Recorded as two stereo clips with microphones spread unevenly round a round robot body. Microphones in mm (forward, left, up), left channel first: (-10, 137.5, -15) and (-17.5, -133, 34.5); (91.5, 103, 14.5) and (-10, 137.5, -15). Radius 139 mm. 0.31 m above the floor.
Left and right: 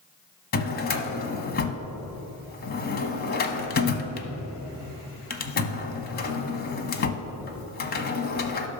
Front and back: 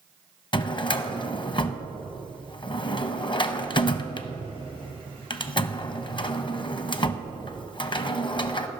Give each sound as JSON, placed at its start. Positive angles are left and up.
{"t": 0.5, "sound": "a drawer", "azimuth_deg": 35, "distance_m": 0.8}